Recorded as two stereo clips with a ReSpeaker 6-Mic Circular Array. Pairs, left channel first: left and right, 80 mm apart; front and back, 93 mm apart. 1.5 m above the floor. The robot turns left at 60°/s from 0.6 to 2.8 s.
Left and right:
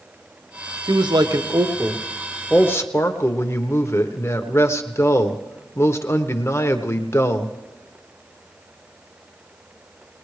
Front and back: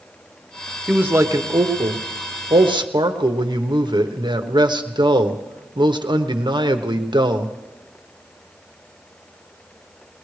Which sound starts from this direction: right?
A man speaking, at 0.9 s.